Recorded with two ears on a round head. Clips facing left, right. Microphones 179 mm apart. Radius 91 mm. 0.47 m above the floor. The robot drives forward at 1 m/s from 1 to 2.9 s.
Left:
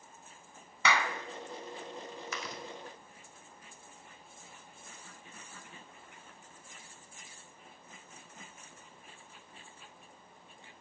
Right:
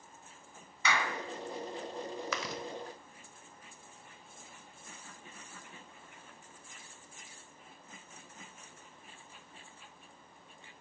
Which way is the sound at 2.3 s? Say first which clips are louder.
Right 4 dB; 60° right (ahead or behind).